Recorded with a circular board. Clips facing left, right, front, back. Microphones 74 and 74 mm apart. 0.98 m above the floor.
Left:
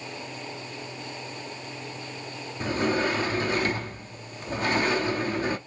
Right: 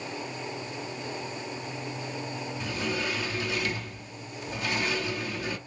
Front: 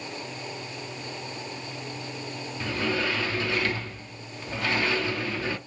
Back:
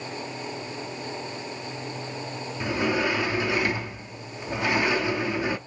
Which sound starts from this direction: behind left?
A sliding door, at 2.6 s.